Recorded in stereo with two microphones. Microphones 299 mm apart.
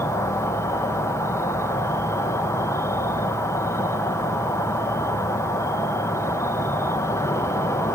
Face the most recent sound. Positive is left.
turn(degrees=10)  # may be behind; listen again after turning